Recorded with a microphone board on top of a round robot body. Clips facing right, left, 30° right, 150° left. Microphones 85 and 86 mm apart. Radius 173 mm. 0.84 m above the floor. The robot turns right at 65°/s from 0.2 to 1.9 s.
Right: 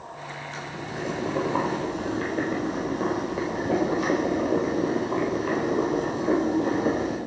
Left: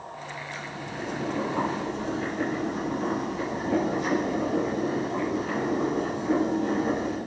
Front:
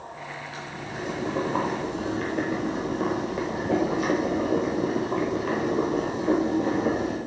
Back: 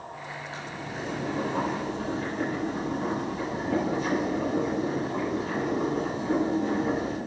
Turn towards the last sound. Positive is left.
turn(degrees=-55)